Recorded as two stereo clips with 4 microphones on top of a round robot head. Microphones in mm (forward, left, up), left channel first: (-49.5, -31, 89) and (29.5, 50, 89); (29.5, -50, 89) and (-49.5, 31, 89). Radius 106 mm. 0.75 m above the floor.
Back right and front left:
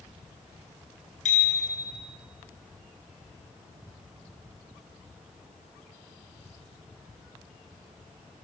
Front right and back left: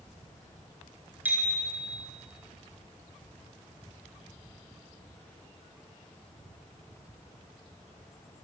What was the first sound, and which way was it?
A bicycle bell, 150° right.